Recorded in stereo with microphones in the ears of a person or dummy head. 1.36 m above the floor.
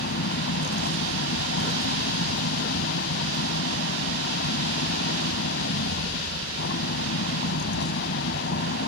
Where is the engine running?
50° left (ahead or behind).